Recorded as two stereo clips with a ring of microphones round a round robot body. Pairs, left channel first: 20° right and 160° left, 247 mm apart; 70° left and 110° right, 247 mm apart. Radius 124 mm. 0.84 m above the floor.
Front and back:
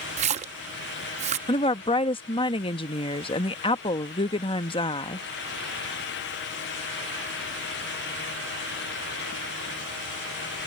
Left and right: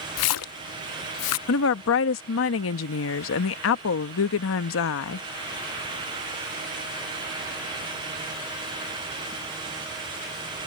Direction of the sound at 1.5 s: 45° left.